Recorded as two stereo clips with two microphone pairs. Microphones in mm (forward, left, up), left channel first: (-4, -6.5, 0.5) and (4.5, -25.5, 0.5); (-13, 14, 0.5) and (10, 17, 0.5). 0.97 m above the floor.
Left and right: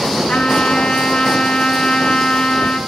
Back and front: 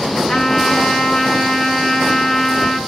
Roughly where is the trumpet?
Behind left.